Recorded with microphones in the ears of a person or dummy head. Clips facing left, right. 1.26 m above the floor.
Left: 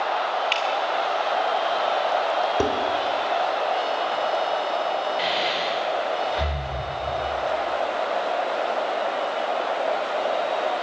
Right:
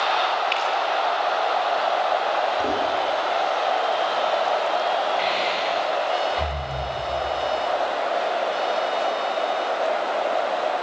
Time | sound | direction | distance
0.5 | dripping | 20° left (ahead or behind) | 2.5 m
2.6 | dishes clattering | 70° left (ahead or behind) | 3.5 m
5.2 | breathing | 10° left (ahead or behind) | 4 m